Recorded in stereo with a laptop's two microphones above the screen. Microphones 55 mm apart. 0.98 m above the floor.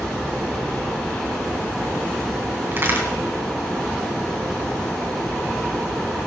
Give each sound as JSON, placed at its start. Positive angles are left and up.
{"t": 0.0, "sound": "a fan", "side_deg": 10, "distance_m": 3.5}
{"t": 2.7, "sound": "a crack", "side_deg": -40, "distance_m": 3.0}